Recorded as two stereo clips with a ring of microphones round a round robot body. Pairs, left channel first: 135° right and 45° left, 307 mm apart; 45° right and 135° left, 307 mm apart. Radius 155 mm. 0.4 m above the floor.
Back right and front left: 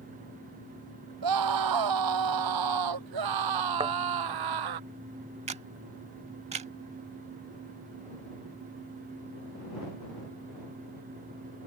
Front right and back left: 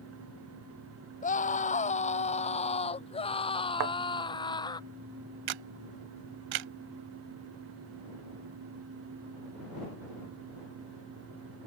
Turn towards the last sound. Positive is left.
turn(degrees=115)